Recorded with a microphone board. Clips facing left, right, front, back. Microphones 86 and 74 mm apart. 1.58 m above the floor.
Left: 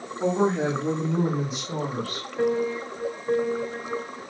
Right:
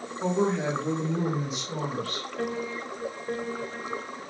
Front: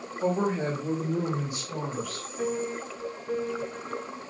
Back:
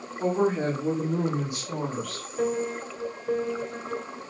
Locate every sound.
0.2 s a woman speaking: 135° left, 4.5 m; by 2.3 s 155° left, 4 m
2.4 s a piano: 160° left, 4.5 m